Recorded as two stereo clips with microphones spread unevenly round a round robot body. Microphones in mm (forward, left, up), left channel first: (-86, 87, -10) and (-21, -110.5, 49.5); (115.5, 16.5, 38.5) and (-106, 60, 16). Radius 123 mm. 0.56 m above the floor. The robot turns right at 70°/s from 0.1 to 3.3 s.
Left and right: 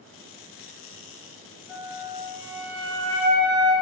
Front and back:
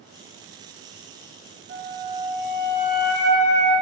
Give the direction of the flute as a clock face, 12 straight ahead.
5 o'clock.